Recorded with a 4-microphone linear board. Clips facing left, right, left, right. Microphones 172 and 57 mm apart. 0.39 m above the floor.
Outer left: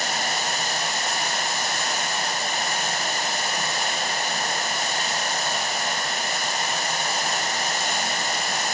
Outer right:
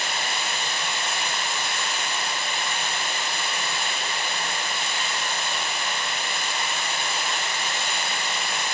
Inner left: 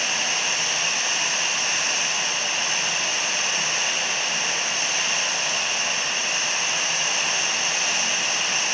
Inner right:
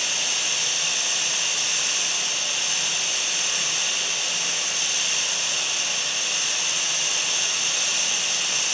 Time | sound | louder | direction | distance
0.0 | running water | outer left 3 dB, inner left 4 dB | 45° left (ahead or behind) | 1.3 m